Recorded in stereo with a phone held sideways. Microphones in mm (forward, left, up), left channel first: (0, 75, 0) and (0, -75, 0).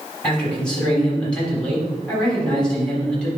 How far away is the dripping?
I don't hear dripping.